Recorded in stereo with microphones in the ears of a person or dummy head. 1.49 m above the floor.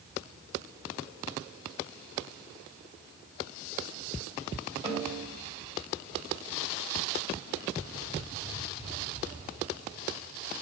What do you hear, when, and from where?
4.8 s a snare drum: 25° right (ahead or behind), 2.5 m